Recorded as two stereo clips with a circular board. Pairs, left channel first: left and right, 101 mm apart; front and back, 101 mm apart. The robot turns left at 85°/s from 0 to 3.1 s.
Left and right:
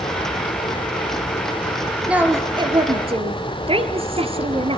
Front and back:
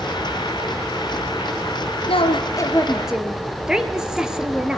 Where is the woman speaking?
10° right, 3 m; by 4.8 s 100° right, 3 m.